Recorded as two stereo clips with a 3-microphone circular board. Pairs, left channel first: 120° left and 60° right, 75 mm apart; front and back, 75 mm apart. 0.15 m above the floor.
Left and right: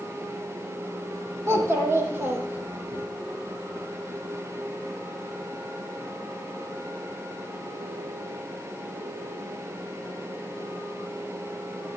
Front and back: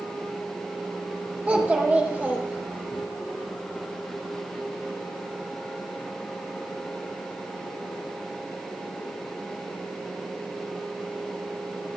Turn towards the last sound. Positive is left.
turn(degrees=-120)